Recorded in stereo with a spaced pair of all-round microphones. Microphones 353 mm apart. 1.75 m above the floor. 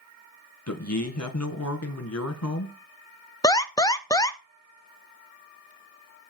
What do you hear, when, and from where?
0.7 s a man speaking: 45° left (ahead or behind), 2 m
3.4 s an alarm: 10° left (ahead or behind), 0.7 m